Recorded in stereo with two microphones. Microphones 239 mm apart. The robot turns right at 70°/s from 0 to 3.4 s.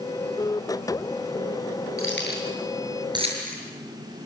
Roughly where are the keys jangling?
Left.